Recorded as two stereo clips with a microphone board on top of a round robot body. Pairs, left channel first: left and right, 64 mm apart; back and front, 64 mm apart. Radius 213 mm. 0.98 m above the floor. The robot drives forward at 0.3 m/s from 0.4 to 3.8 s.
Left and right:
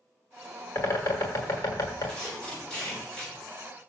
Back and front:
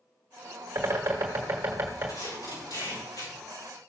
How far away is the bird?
About 1.3 m.